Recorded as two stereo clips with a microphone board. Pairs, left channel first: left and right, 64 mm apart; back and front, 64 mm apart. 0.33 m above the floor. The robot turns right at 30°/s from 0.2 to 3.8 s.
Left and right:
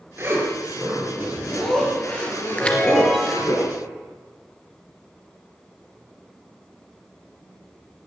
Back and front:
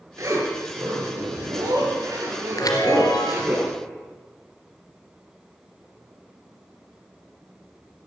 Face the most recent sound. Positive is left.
turn(degrees=-165)